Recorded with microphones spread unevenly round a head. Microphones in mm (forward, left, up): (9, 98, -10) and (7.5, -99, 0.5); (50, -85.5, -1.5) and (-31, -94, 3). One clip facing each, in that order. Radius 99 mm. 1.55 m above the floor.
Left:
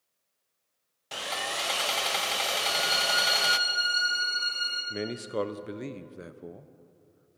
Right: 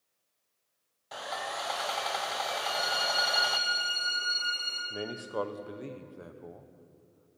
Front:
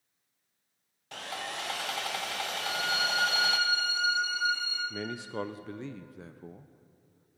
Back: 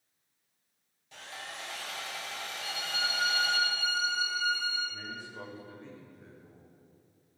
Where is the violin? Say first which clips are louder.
Left 2 dB, front 4 dB; 30° left, 5 m.